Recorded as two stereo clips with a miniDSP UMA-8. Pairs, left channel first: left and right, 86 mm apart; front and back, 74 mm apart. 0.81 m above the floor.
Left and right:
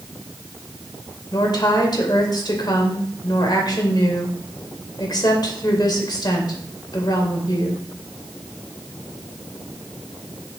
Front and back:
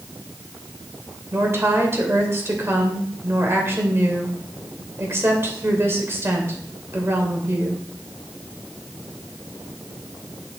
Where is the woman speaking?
125° left, 2.5 m.